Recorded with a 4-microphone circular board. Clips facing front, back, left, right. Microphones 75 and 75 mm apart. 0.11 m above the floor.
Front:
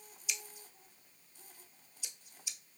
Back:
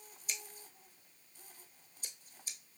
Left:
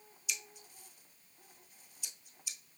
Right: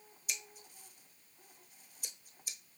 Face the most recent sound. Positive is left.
turn(degrees=-135)